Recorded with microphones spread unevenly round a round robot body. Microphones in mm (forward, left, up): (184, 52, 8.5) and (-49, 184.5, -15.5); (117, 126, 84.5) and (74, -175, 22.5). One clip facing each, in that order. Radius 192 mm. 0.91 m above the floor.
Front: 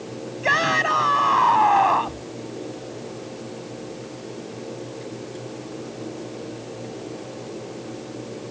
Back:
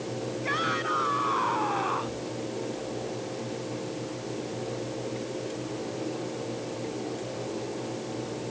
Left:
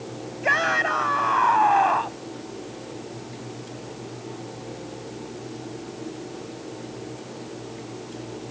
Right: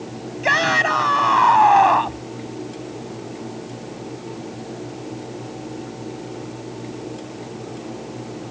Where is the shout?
65° right; by 2.2 s 70° right.